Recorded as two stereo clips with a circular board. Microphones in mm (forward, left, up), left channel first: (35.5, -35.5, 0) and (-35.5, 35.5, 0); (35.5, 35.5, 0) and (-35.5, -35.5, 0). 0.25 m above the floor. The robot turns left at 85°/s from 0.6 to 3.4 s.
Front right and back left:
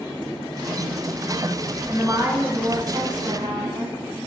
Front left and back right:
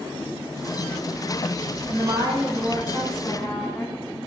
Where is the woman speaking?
120° right, 1.6 m; by 4.0 s 110° left, 1.6 m.